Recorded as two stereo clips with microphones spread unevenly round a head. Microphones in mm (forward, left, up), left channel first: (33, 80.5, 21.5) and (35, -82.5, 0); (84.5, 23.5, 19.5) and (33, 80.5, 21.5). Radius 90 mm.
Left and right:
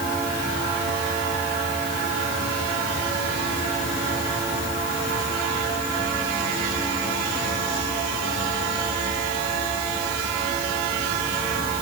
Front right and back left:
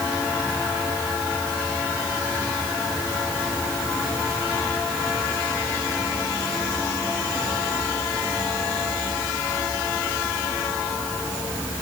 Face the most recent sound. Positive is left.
No sound to turn to.